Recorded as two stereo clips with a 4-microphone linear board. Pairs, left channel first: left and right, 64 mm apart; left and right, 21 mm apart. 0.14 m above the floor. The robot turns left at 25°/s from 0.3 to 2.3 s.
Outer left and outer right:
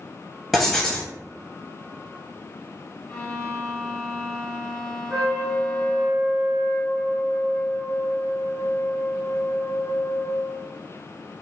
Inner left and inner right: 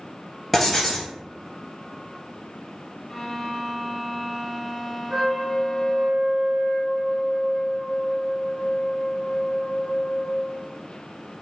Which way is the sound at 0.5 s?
Centre (ahead or behind).